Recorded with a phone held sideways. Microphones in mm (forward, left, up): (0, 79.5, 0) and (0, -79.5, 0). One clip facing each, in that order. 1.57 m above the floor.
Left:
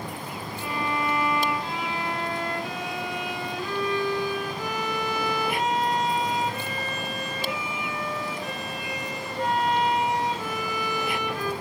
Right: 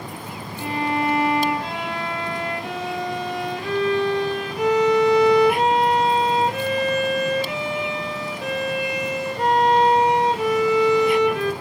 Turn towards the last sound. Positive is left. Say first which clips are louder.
# right 6 dB
turn(degrees=-70)  # may be behind; listen again after turning